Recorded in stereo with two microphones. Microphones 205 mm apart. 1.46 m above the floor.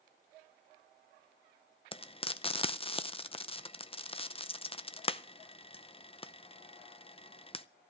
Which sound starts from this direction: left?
Frying, at 1.9 s.